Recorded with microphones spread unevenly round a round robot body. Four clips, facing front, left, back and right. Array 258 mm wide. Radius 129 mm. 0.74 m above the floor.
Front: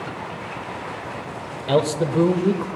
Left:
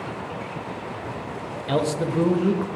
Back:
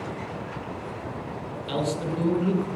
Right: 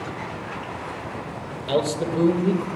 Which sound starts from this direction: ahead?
A man speaking, at 1.7 s.